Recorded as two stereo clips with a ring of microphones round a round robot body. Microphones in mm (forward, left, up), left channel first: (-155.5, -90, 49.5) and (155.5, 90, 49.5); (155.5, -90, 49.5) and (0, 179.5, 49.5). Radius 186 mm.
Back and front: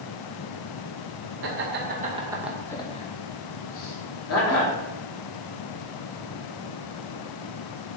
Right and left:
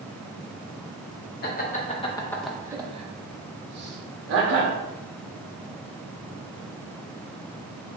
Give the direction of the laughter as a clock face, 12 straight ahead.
12 o'clock.